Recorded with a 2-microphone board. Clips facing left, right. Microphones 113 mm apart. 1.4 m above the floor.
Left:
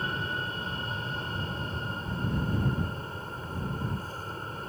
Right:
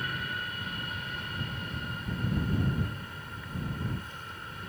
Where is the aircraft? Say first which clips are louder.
Left 3 dB; 30° left (ahead or behind); by 4.7 s 35° left (ahead or behind).